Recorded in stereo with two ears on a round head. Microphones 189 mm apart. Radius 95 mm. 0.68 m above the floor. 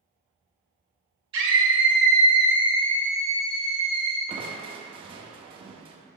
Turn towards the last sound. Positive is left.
turn(degrees=-25)  # may be behind; listen again after turning